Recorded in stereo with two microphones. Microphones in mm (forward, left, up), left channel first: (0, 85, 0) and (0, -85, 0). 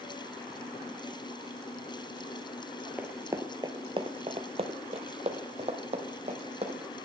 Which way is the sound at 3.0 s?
10° right (ahead or behind).